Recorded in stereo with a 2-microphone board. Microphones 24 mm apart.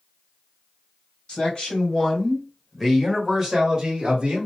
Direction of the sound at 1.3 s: 50° left (ahead or behind).